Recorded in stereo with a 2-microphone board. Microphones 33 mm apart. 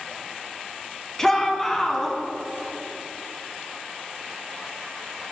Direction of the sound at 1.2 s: 10° left (ahead or behind).